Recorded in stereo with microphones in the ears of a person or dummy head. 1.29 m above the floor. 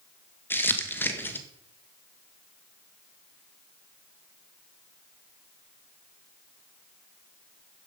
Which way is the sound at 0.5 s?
5° left (ahead or behind).